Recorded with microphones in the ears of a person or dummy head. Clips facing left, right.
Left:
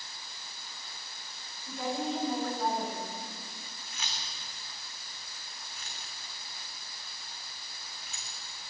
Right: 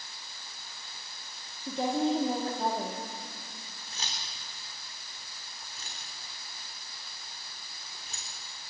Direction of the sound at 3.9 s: 30° right (ahead or behind).